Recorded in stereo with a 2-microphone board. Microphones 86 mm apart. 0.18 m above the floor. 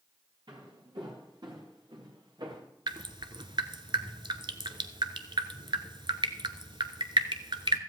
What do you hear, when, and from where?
0.5 s footsteps: 60° right (ahead or behind), 4.5 m
2.9 s dripping: 65° right (ahead or behind), 0.8 m